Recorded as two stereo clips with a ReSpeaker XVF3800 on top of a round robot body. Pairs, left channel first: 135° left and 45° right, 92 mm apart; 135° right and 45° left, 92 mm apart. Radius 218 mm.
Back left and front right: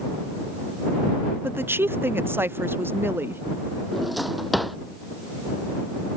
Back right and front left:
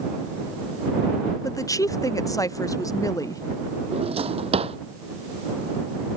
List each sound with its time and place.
1.4 s a woman speaking: 100° right
3.9 s a drawer: 45° left